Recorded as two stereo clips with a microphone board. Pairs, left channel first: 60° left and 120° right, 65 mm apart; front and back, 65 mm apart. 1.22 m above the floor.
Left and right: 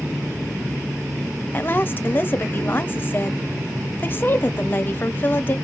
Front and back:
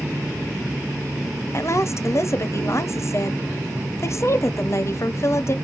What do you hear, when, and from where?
1.5 s a woman speaking: 15° left, 0.7 m